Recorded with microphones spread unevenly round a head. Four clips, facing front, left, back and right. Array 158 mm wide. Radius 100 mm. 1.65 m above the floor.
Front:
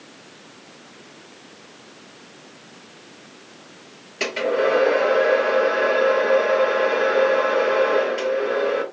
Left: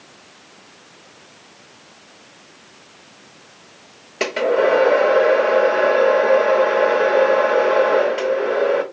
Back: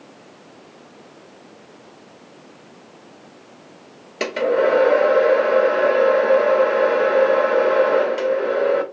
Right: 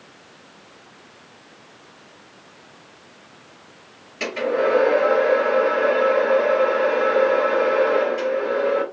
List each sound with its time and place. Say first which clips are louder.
4.2 s a hair dryer: left 4 dB, back 3 dB; 135° left, 0.7 m